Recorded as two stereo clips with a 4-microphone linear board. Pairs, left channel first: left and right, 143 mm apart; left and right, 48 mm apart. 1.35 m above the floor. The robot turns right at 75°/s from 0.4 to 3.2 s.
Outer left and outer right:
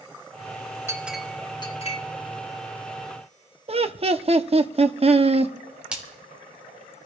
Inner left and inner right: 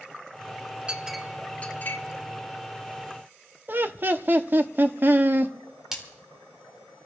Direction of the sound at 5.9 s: 10° right (ahead or behind).